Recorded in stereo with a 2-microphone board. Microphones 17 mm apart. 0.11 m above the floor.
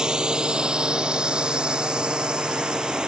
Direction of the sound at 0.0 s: 55° right (ahead or behind).